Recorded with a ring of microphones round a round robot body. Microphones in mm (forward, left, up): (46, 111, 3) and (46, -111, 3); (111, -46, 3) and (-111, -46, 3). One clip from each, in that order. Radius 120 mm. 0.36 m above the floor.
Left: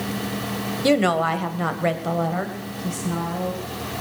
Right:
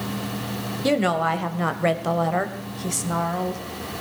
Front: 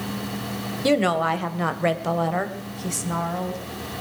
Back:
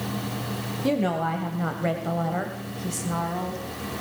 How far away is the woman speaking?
About 1.6 m.